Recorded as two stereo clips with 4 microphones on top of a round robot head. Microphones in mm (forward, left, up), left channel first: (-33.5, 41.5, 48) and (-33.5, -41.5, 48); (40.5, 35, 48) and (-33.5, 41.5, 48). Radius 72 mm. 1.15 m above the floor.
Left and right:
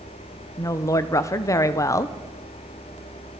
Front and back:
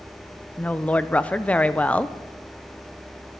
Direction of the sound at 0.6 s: 60° left.